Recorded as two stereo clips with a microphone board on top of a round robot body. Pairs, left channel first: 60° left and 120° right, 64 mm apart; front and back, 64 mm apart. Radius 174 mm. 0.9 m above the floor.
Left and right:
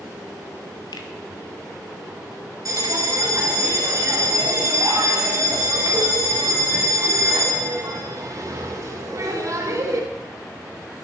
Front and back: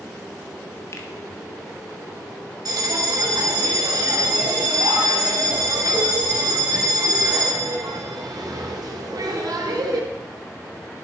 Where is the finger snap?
50° left, 1.4 m.